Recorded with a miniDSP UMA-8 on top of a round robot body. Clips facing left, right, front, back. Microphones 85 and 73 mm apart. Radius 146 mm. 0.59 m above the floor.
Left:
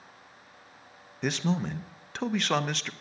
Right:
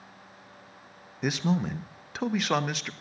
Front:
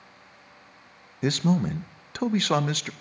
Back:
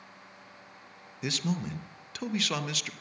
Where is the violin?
I don't hear a violin.